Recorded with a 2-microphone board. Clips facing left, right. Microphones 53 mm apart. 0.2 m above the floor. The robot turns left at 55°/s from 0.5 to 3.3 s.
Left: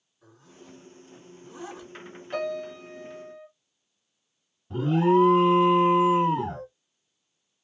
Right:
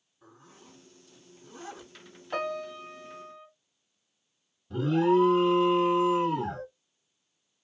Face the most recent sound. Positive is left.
turn(degrees=30)  # may be behind; listen again after turning